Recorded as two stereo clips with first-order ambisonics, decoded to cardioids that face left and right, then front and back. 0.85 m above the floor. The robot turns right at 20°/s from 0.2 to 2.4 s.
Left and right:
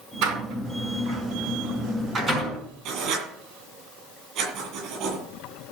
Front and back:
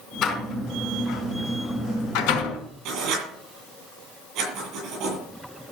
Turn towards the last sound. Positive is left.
turn(degrees=-135)